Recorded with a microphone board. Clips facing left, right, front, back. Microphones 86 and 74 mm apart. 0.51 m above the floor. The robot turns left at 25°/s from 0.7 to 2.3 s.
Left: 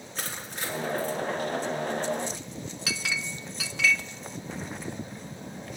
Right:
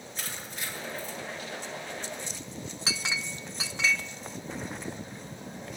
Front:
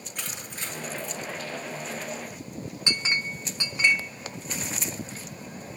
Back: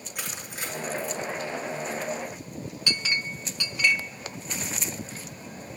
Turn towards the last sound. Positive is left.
turn(degrees=-45)